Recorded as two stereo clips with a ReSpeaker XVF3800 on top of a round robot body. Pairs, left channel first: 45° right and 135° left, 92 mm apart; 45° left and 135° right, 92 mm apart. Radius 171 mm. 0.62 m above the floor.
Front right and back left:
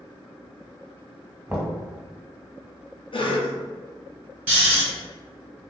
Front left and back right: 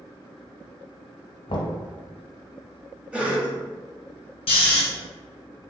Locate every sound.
1.5 s knocking: 65° left, 1.0 m
3.1 s a cough: 60° right, 1.0 m
4.5 s snoring: 60° left, 0.8 m